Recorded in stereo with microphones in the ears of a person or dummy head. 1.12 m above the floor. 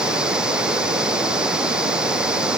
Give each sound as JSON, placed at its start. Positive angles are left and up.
{"t": 0.0, "sound": "running water", "side_deg": -5}